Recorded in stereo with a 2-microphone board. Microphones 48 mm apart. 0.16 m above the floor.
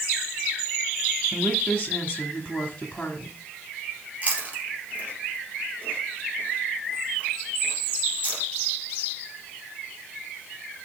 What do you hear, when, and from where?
1.3 s a woman speaking: 20° left (ahead or behind), 1.7 m
4.2 s chewing: 30° right (ahead or behind), 3.5 m